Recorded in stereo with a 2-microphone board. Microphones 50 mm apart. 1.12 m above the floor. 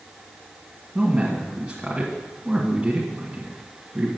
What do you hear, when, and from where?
0.9 s a man speaking: 20° right (ahead or behind), 1.6 m